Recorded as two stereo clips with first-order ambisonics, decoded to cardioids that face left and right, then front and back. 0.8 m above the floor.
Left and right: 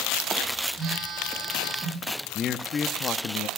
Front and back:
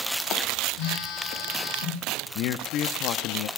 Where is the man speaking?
30° left, 0.8 m.